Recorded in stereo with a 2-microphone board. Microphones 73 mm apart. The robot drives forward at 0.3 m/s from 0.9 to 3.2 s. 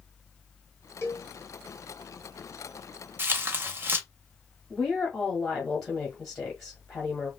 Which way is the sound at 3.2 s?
30° right (ahead or behind).